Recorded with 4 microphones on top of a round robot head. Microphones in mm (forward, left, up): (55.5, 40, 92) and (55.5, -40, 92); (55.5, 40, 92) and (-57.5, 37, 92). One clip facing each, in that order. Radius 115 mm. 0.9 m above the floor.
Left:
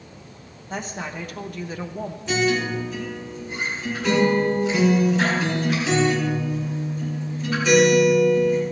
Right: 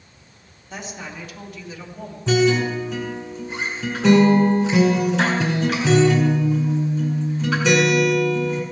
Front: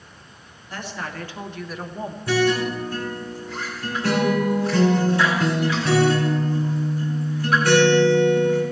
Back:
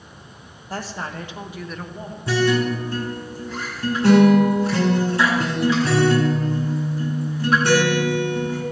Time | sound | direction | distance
0.7 | a woman speaking | 135° left | 1.8 m
2.3 | a guitar | 110° right | 2.5 m